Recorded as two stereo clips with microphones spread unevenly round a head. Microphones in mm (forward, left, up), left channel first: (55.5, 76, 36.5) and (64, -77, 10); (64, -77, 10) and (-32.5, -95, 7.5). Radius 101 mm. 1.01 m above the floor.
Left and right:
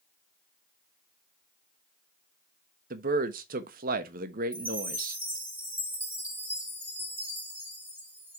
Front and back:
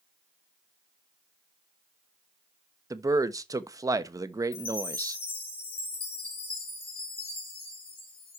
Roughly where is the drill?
No drill in this recording.